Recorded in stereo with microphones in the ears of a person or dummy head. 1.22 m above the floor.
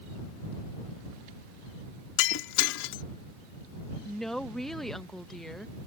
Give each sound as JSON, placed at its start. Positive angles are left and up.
{"t": 2.2, "sound": "breaking glass", "side_deg": 75}
{"t": 4.0, "sound": "a woman speaking", "side_deg": 0}